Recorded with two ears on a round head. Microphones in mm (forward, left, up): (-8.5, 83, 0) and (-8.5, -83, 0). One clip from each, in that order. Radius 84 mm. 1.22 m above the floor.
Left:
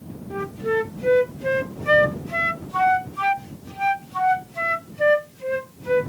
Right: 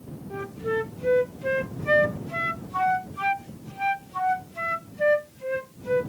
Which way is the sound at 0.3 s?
10° left (ahead or behind).